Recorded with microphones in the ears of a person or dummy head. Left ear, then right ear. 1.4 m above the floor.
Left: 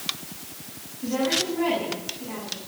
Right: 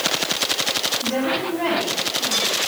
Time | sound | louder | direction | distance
1.0 | a woman speaking | right 3 dB | 45° right (ahead or behind) | 9 m